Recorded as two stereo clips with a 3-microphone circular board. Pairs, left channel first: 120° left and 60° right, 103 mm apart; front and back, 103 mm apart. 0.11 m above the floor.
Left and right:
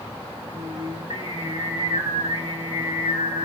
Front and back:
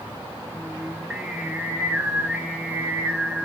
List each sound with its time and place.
0.5 s singing: 100° right, 5 m